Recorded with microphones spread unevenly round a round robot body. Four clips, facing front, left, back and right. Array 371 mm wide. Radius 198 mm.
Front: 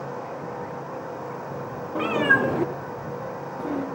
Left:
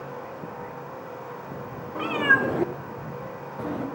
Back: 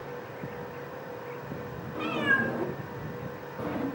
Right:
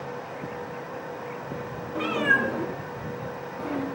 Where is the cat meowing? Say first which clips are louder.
Left 1 dB, front 7 dB; 5° right, 1.3 m; by 3.9 s 130° left, 1.7 m.